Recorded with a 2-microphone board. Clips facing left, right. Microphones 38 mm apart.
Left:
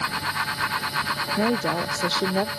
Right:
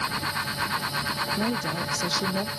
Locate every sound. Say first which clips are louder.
1.4 s a woman speaking: left 4 dB; 40° left (ahead or behind); by 2.5 s 35° left (ahead or behind)